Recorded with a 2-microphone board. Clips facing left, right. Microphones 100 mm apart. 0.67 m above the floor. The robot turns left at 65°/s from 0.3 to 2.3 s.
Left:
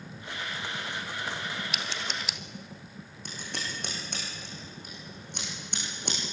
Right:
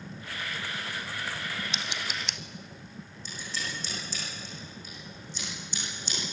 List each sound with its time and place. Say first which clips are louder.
1.7 s scissors: even; 30° right (ahead or behind), 1.1 m; by 2.4 s 5° left (ahead or behind), 1.1 m
3.2 s scissors: even; 60° left (ahead or behind), 8.5 m